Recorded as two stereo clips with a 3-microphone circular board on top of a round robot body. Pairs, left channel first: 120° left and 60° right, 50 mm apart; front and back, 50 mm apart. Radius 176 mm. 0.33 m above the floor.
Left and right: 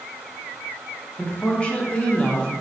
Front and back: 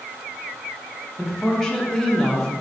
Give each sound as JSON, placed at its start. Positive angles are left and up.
{"t": 1.2, "sound": "a woman speaking", "azimuth_deg": 70, "distance_m": 1.0}